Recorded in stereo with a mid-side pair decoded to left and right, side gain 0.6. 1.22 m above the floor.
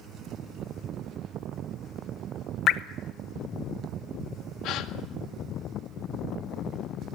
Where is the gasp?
65° left, 1.7 m.